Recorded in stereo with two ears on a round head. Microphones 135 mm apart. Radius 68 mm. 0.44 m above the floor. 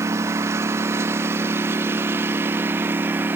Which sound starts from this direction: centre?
A lawn mower, at 0.0 s.